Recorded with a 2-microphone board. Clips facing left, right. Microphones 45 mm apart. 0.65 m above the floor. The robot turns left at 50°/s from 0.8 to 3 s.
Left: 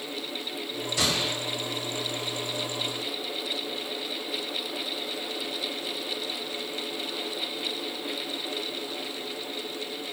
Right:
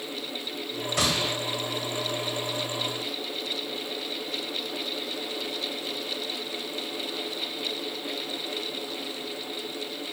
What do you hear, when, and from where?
1.0 s a gunshot: 60° right (ahead or behind), 1.2 m; by 1.3 s 75° right (ahead or behind), 1.2 m